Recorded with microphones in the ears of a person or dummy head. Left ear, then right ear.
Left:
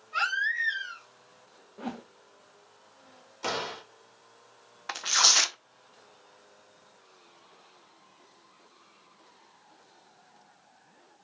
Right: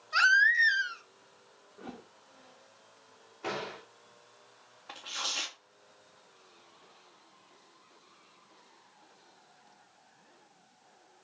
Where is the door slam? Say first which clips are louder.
Left 5 dB; 85° left, 3 m.